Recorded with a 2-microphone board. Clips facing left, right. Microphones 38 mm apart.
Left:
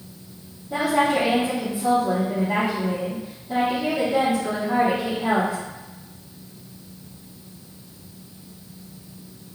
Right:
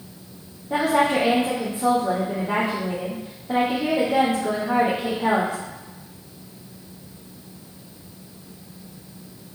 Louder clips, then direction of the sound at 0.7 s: Right 1 dB; 55° right (ahead or behind).